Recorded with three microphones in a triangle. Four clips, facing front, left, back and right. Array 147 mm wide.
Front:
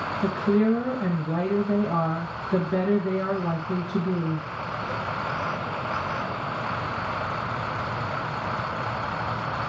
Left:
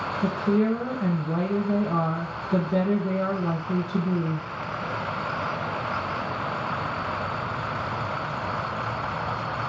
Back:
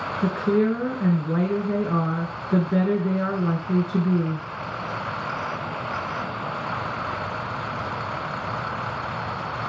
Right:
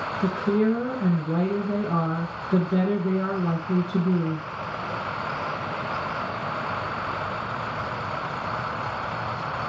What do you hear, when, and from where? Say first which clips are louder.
0.2 s a woman speaking: right 1 dB, back 1 dB; 170° right, 1.7 m